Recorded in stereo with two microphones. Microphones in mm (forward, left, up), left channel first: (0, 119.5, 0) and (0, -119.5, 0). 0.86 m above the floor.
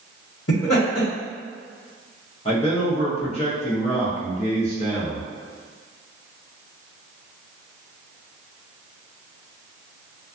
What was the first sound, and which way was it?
Laughter, 70° left (ahead or behind).